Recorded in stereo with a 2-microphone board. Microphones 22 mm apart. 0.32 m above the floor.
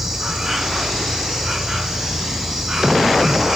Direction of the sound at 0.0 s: 10° right (ahead or behind).